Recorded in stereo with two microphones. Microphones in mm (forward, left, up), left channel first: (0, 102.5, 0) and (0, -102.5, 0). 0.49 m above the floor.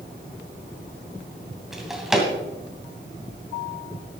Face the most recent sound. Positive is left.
turn(degrees=0)  # may be behind; listen again after turning